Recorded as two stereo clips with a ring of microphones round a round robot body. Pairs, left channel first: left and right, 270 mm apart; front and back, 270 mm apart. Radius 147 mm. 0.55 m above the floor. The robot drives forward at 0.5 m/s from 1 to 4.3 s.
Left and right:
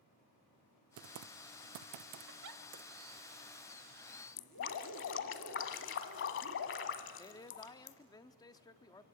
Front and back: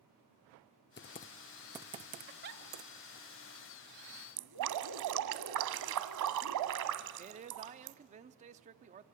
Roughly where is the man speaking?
Behind left.